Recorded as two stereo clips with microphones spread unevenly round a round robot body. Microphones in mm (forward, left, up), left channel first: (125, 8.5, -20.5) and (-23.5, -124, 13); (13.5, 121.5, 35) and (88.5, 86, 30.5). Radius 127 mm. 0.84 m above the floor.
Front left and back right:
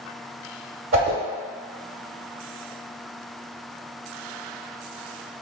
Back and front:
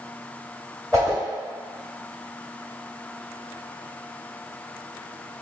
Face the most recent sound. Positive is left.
turn(degrees=-120)